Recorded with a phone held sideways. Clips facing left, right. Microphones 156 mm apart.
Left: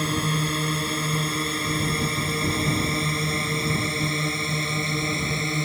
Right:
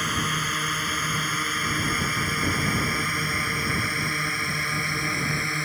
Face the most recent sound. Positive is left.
turn(degrees=20)  # may be behind; listen again after turning